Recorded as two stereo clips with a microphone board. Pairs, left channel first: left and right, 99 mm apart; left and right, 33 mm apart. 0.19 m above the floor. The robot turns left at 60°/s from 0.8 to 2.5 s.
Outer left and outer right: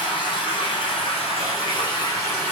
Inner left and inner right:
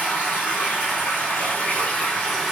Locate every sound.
0.0 s running water: 115° left, 1.8 m; by 2.5 s 15° left, 1.8 m